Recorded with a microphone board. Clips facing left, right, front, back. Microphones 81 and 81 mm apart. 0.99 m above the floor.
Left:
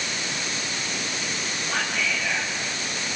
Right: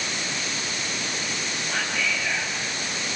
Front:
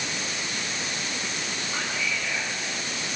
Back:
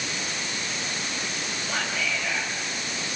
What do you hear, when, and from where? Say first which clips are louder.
1.7 s whispering: left 1 dB, back 2 dB; straight behind, 7.5 m